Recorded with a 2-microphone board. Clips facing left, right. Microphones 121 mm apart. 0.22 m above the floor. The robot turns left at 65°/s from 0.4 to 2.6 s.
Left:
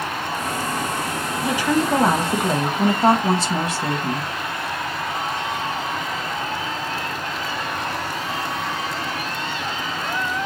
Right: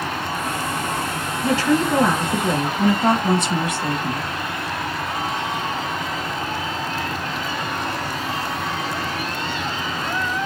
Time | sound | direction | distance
1.4 | a woman speaking | 165° left | 1.1 m